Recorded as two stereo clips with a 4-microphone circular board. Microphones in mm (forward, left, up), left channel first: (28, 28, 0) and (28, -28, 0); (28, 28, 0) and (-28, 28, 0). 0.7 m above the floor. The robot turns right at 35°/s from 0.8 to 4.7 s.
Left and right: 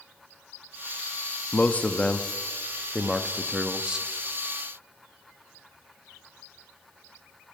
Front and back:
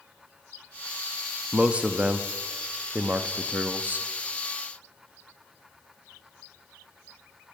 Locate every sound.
1.5 s a man speaking: 120° left, 0.6 m; by 4.1 s 150° right, 0.6 m